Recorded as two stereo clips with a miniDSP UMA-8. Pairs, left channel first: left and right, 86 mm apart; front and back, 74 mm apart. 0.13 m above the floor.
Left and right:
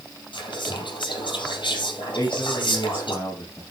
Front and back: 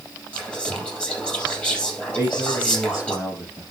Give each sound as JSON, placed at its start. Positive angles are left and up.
{"t": 0.3, "sound": "whispering", "azimuth_deg": 75, "distance_m": 3.5}
{"t": 2.1, "sound": "a man speaking", "azimuth_deg": 40, "distance_m": 4.5}